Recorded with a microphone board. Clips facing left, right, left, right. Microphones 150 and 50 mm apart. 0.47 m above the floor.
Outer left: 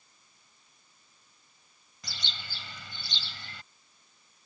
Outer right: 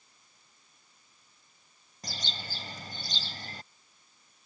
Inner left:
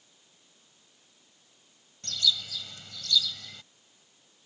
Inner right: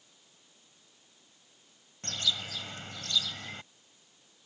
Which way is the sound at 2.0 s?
40° right (ahead or behind).